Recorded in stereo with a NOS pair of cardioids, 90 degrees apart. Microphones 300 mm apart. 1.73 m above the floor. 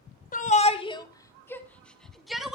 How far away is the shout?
About 2 m.